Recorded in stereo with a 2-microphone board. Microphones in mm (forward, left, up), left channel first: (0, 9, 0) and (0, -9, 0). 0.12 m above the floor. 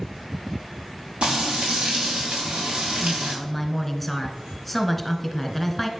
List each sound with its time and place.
1.2 s frying: 80° right, 4.5 m
3.0 s a woman speaking: 10° left (ahead or behind), 1.2 m